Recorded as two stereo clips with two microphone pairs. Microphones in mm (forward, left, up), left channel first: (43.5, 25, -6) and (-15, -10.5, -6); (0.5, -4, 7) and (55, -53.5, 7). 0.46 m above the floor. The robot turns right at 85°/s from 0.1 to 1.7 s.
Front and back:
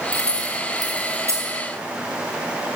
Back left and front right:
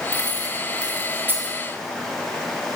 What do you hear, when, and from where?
0.1 s keys jangling: 155° left, 3.5 m; by 1.6 s 85° right, 3.5 m